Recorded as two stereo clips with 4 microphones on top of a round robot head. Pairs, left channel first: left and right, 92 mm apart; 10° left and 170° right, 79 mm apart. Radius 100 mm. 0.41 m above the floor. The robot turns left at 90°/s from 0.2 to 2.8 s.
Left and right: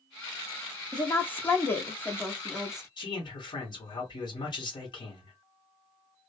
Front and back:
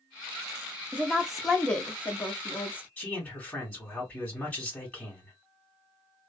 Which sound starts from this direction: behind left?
A woman speaking, at 0.9 s.